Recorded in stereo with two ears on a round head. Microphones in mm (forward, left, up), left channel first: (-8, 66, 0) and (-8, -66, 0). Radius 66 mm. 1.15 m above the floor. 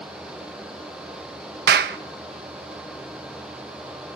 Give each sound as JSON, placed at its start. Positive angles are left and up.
{"t": 1.7, "sound": "a clap", "side_deg": -75, "distance_m": 0.7}